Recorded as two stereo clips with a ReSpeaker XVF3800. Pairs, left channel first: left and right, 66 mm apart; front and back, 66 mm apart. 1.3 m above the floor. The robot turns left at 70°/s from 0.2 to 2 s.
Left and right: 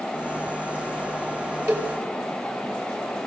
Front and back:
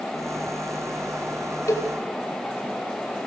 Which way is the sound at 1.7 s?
50° right.